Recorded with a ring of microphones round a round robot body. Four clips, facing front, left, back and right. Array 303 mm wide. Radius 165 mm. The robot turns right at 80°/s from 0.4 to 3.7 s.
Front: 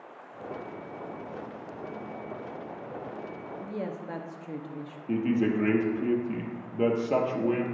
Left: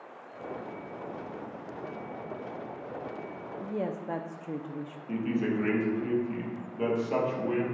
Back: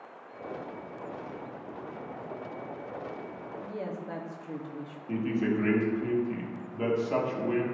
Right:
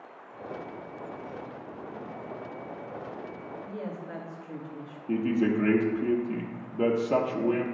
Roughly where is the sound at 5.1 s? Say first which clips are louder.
Right 4 dB, front 3 dB; ahead right.